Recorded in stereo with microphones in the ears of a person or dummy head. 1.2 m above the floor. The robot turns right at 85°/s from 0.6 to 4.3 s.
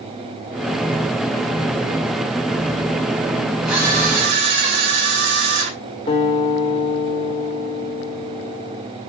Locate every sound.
3.6 s a camera shutter: straight behind, 7 m; by 5.7 s 125° right, 7 m
6.1 s a guitar: 30° left (ahead or behind), 3 m